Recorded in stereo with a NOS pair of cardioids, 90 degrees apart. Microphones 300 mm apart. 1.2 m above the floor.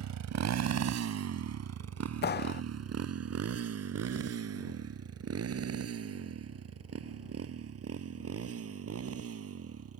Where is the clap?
35° left.